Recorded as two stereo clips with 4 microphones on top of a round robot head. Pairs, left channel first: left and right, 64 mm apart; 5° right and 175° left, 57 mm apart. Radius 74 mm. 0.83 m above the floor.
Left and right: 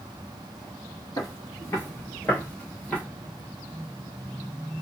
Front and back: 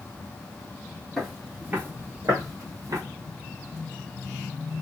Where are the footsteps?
85° left, 0.9 m; by 3.0 s 160° left, 1.6 m.